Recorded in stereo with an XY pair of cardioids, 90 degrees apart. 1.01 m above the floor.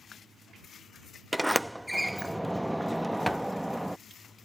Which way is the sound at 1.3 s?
10° right.